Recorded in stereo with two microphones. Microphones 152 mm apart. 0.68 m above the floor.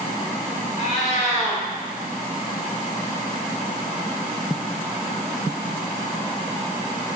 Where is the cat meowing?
50° left (ahead or behind), 1.5 m.